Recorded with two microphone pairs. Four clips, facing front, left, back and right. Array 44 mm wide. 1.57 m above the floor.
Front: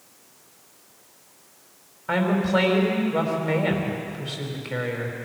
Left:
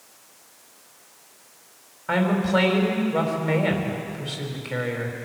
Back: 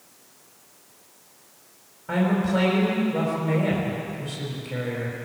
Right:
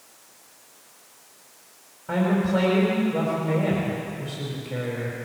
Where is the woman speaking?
55° left, 5 m.